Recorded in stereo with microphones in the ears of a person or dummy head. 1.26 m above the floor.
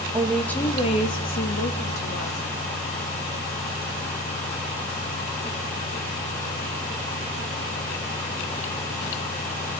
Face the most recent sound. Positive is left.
turn(degrees=50)  # may be behind; listen again after turning